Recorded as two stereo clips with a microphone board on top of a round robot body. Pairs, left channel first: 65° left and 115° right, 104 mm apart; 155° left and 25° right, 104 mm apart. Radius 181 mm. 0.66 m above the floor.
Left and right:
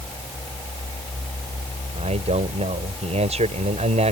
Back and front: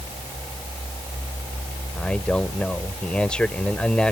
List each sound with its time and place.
1.9 s a man speaking: 120° right